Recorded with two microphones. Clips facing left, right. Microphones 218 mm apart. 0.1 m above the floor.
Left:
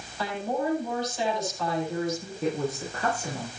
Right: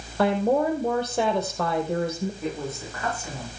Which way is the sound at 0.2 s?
60° right (ahead or behind).